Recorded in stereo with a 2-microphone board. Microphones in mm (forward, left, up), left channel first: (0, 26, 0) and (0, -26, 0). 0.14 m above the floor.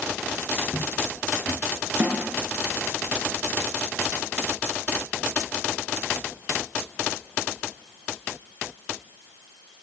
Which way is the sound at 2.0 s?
40° right (ahead or behind).